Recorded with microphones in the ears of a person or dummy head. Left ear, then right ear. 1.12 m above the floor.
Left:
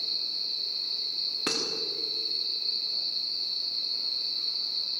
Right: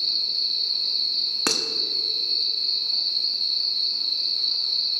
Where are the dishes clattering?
35° right (ahead or behind), 1.1 m.